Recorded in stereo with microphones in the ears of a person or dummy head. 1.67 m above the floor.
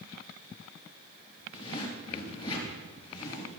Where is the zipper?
30° left (ahead or behind), 4 m.